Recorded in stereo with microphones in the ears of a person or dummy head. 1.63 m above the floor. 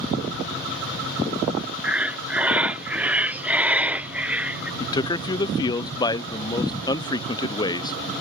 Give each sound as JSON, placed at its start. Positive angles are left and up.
{"t": 1.8, "sound": "breathing", "side_deg": -5}
{"t": 4.8, "sound": "a man speaking", "side_deg": 25}